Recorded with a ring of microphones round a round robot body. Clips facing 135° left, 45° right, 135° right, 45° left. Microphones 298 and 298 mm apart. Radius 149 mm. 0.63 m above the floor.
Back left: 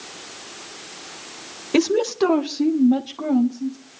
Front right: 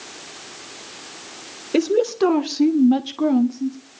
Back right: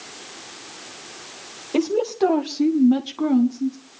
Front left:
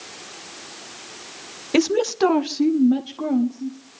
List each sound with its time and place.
1.7 s a woman speaking: 65° left, 1.4 m; by 3.8 s 90° right, 2.0 m